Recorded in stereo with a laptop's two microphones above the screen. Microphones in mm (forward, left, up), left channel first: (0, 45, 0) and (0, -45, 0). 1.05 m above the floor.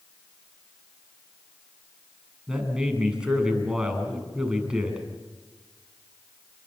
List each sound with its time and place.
2.5 s a man speaking: 10° right (ahead or behind), 8 m